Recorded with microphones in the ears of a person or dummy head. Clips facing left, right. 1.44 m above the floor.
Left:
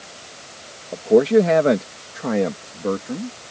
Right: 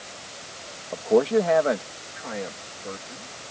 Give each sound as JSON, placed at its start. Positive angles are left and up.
{"t": 0.9, "sound": "a man speaking", "side_deg": 25}